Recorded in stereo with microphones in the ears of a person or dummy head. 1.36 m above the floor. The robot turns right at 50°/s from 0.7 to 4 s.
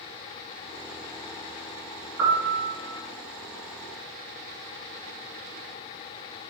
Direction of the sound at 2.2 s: 75° right (ahead or behind).